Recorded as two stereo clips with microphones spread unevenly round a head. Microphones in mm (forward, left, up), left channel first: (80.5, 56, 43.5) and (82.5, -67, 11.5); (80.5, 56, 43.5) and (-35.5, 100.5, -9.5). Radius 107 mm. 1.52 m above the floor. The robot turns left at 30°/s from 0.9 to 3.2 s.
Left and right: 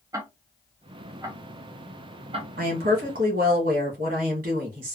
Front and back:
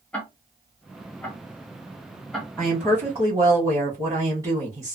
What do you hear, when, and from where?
0.1 s ticking: 20° right, 0.7 m; by 2.5 s 65° right, 0.7 m
2.6 s a woman speaking: 100° right, 1.5 m; by 5.0 s 120° right, 1.5 m